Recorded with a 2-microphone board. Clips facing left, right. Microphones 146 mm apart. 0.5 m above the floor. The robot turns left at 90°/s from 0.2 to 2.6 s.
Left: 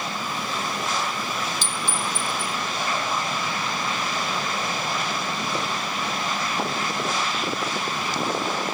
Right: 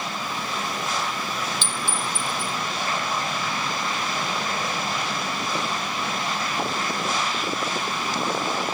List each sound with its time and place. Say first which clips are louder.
1.6 s a clink: even; 40° left (ahead or behind), 1.6 m; by 2.5 s 35° right (ahead or behind), 1.6 m